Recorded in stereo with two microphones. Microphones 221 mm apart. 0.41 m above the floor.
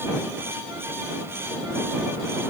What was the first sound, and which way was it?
Only background noise.